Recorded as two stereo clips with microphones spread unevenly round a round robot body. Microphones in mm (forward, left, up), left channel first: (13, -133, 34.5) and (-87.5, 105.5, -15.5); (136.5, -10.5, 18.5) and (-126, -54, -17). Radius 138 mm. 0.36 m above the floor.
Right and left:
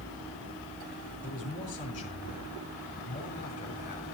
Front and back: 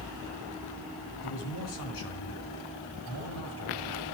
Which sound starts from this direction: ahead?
A man speaking, at 1.2 s.